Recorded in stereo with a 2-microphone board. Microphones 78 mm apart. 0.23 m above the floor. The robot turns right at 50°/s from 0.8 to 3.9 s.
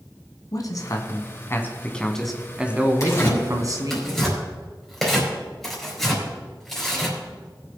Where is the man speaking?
105° left, 1.7 m; by 4.0 s 100° right, 1.7 m.